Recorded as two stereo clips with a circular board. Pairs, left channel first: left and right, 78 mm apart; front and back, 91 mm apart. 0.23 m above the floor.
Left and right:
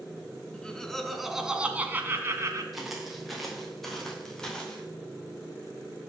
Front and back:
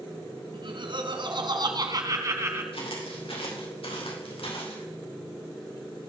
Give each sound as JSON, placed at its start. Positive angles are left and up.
{"t": 0.5, "sound": "laughter", "azimuth_deg": 170, "distance_m": 2.5}
{"t": 2.7, "sound": "footsteps", "azimuth_deg": -5, "distance_m": 5.0}